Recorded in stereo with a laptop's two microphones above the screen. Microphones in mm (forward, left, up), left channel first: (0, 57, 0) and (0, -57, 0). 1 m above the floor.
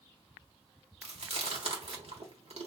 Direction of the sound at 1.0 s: 70° right (ahead or behind).